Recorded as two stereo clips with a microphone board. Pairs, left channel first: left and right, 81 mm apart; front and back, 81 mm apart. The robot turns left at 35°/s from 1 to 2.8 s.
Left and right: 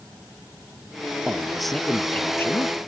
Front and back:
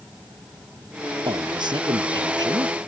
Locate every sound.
1.2 s a man speaking: 165° right; by 2.8 s 140° left